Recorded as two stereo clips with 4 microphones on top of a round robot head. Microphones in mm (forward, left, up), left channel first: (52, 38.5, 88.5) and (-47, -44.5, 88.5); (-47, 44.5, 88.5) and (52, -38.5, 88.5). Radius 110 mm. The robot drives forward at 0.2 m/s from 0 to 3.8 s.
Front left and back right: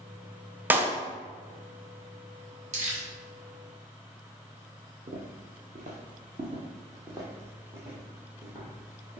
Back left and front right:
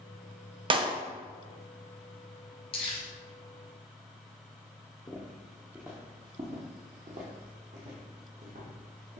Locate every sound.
0.7 s a clap: 70° right, 0.6 m; by 1.0 s 75° right, 0.6 m
2.7 s crumpling: 170° right, 1.1 m
5.1 s footsteps: 160° right, 0.7 m; by 9.2 s 60° right, 2.0 m